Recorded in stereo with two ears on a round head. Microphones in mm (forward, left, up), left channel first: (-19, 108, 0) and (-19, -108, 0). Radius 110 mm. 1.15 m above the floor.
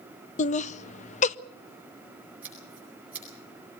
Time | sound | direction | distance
0.4 | laughter | 30° left (ahead or behind) | 0.6 m
2.4 | scissors | 5° right (ahead or behind) | 9.5 m